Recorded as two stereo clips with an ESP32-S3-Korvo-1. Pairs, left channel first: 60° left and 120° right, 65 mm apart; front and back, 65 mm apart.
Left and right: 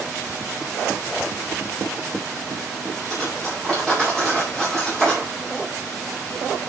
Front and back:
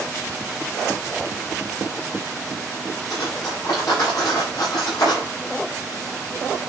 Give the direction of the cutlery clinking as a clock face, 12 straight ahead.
1 o'clock.